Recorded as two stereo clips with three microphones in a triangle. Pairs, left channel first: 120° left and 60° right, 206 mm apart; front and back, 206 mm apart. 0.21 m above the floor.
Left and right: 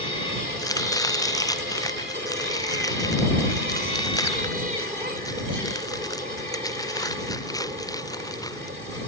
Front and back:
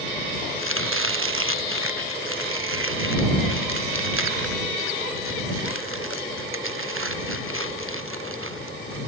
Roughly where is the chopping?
Behind.